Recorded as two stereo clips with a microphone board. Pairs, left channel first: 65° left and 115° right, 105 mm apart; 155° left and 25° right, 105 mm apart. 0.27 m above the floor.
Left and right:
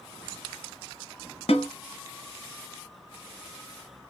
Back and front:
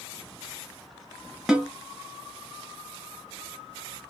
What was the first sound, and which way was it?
A snare drum, 65° left.